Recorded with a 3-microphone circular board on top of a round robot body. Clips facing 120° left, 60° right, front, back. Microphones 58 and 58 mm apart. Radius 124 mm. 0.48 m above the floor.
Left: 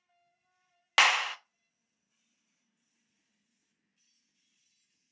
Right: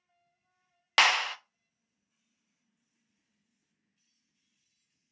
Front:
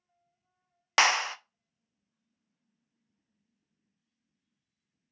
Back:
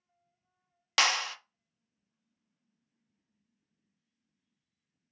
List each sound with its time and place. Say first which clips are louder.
1.0 s a clap: even, front 4 dB; 35° left, 0.5 m